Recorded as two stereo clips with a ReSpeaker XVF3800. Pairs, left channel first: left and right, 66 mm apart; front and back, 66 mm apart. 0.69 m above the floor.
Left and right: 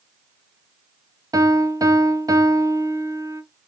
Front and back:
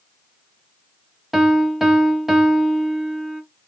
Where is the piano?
95° right, 0.8 m.